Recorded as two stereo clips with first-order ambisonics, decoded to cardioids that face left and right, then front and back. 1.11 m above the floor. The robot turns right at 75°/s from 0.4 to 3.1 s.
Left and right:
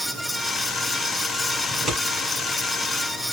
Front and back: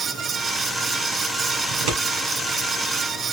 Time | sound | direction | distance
1.7 | scissors | 175° left | 2 m